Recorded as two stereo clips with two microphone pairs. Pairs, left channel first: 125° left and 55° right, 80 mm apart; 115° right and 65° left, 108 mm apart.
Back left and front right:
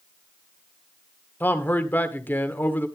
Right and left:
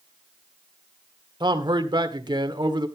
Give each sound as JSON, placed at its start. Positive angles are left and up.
{"t": 1.4, "sound": "a man speaking", "azimuth_deg": 75, "distance_m": 1.6}